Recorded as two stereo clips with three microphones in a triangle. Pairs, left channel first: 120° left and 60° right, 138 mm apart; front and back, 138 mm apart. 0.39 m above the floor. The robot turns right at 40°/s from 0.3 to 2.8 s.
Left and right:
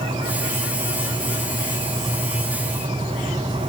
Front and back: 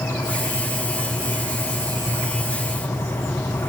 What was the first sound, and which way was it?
Only background noise.